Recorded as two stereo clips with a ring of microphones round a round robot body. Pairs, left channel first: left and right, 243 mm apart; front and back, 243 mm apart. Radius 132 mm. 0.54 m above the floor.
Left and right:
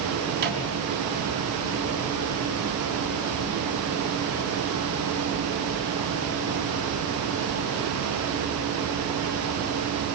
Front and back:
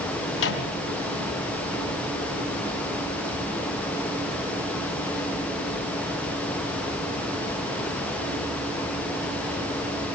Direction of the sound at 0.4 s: 35° right.